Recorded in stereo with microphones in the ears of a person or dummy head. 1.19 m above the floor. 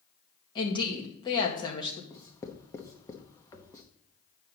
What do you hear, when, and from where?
0.6 s a woman speaking: 25° left (ahead or behind), 1.9 m
2.1 s writing: 20° left (ahead or behind), 1.0 m